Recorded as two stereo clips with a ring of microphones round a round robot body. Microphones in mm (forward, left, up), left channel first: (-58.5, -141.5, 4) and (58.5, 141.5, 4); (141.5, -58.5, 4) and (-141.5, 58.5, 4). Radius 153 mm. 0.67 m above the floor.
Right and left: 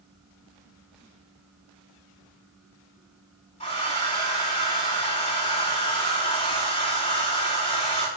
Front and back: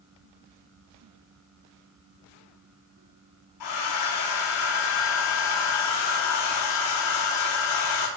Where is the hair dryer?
45° right, 5 m.